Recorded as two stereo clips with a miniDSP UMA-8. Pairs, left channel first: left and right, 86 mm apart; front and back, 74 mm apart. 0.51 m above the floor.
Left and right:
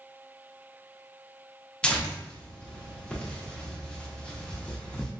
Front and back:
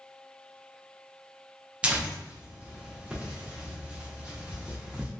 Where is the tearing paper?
145° left, 0.5 m.